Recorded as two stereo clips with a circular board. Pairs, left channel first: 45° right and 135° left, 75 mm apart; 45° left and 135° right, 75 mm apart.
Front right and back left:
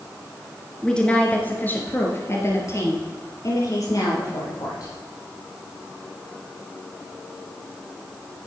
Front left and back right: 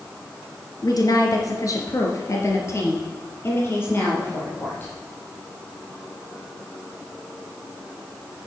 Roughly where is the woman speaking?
Ahead left.